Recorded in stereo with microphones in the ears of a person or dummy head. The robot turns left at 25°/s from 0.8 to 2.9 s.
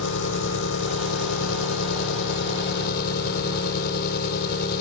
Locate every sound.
0.0 s an engine running: 100° left; by 4.8 s 50° left